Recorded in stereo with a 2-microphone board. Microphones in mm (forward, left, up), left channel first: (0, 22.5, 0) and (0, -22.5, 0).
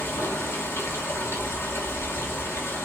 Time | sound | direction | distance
0.0 | running water | 75° left (ahead or behind) | 1.1 m